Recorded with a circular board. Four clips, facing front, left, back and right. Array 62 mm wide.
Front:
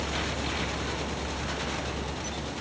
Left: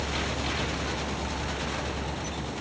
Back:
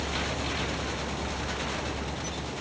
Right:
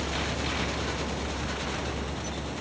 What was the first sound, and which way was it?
Only background noise.